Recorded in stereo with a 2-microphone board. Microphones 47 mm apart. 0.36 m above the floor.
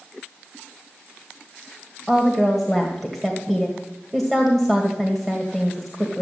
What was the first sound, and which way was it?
A woman speaking, 5° left (ahead or behind).